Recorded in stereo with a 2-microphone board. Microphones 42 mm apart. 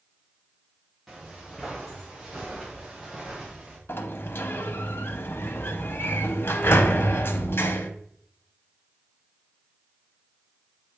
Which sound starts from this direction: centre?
Footsteps, at 1.1 s.